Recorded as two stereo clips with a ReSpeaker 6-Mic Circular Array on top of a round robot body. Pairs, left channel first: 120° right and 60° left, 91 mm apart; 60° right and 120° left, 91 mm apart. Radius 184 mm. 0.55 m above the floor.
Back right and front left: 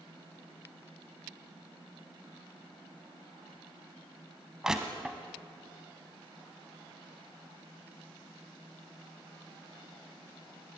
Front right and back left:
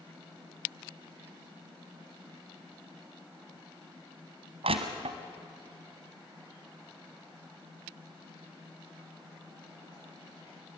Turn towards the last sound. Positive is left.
turn(degrees=145)